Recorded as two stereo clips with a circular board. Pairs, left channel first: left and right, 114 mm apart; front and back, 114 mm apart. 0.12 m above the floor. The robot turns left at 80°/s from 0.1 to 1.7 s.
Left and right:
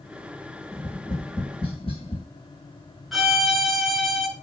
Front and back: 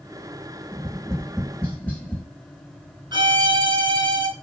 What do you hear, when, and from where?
0.7 s tapping: 155° left, 1.7 m; by 2.2 s 75° left, 1.7 m
3.1 s a violin: straight behind, 1.0 m